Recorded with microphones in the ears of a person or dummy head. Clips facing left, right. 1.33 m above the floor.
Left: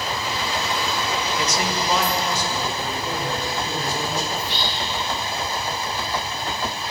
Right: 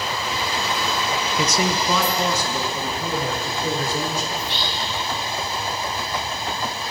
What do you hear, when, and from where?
1.4 s a man speaking: 80° right, 0.7 m
4.4 s whispering: 40° left (ahead or behind), 3 m